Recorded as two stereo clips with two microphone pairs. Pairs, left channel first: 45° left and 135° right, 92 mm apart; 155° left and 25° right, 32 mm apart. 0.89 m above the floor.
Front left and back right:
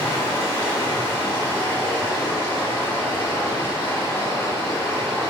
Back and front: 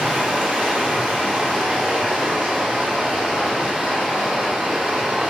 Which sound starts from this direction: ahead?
Running water, at 0.0 s.